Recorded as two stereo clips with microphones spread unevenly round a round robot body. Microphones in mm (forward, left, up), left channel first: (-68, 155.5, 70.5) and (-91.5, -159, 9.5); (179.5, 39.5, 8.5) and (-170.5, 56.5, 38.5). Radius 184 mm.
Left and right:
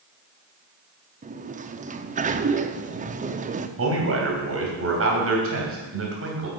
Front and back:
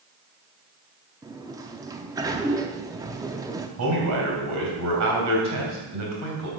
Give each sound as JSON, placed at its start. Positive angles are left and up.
{"t": 1.2, "sound": "a sliding door", "azimuth_deg": -105, "distance_m": 0.6}
{"t": 3.8, "sound": "a man speaking", "azimuth_deg": -135, "distance_m": 3.0}